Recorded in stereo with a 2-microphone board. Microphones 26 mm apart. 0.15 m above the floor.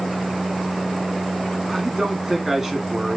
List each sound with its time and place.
1.7 s a man speaking: 15° right (ahead or behind), 1.3 m